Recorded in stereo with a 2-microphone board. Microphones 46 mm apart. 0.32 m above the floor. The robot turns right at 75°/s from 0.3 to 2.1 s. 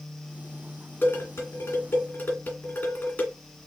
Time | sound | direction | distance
1.0 | dishes clattering | 50° left (ahead or behind) | 2 m